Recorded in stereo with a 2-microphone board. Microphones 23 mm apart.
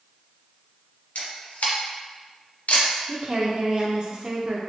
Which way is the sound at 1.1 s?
80° left.